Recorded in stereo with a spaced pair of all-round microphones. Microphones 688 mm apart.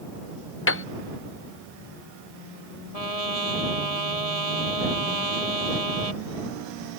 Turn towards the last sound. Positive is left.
turn(degrees=-60)  # may be behind; listen again after turning